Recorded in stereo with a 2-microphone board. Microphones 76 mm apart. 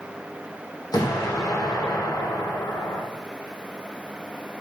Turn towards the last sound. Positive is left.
turn(degrees=55)  # may be behind; listen again after turning